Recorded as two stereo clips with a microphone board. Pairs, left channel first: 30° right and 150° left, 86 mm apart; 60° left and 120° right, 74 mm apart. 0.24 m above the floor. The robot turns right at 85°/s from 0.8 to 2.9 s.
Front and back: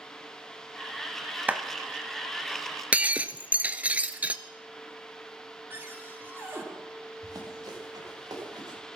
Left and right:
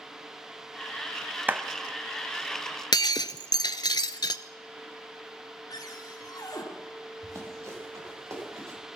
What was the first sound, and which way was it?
A clap, 160° right.